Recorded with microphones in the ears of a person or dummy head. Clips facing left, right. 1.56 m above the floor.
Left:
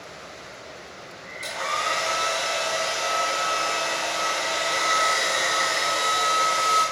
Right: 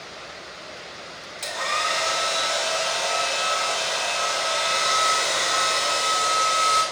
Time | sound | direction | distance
1.4 | a hair dryer | 25° right (ahead or behind) | 1.4 m